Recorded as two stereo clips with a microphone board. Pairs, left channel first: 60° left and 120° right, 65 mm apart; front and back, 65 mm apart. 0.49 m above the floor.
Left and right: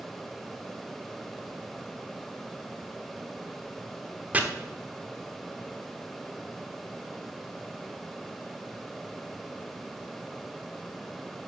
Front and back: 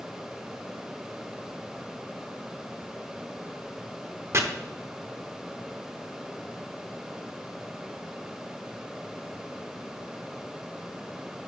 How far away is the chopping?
About 1.0 m.